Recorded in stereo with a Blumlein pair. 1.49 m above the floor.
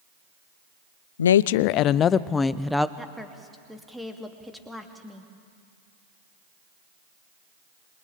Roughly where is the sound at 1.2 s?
Left.